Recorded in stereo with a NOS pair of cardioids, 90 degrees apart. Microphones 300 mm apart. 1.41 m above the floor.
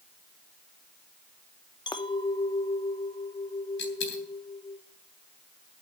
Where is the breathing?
I don't hear breathing.